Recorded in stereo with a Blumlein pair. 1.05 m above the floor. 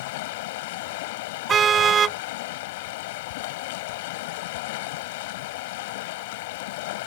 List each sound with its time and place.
0.0 s running water: 50° left
1.5 s a car horn: 20° right